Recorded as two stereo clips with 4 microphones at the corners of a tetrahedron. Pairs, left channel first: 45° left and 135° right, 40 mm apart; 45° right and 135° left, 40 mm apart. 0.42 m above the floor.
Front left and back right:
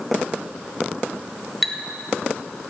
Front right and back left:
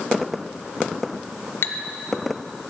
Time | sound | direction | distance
1.6 | a clink | 40° right | 1.2 m